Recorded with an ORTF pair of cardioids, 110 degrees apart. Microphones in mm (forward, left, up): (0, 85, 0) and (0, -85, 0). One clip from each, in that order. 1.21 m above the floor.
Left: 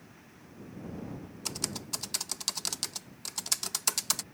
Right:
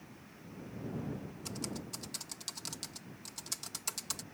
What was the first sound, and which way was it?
Typing on a keyboard, 55° left.